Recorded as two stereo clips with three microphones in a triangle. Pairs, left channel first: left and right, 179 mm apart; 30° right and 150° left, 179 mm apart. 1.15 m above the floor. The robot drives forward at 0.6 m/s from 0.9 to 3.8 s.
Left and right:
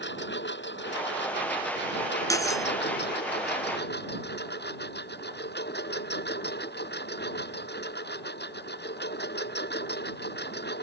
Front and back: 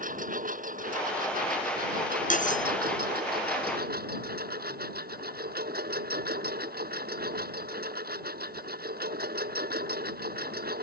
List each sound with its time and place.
0.0 s a lawn mower: 105° left; by 10.8 s 115° left
2.3 s cutlery clinking: 15° left